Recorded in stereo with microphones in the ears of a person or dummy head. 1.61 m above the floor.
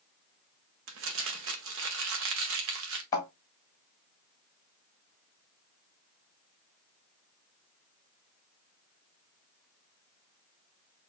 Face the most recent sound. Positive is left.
turn(degrees=20)  # may be behind; listen again after turning